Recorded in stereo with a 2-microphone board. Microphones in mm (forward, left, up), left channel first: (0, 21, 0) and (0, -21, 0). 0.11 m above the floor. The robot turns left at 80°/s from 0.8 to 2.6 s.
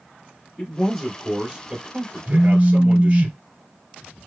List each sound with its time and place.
0.6 s a man speaking: 25° left, 2.5 m; by 3.3 s 120° right, 2.5 m
2.3 s a phone buzzing: 50° right (ahead or behind), 1.0 m; by 3.4 s 25° right (ahead or behind), 1.0 m